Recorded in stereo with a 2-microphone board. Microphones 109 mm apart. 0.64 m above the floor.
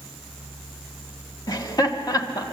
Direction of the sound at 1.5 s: 35° left (ahead or behind).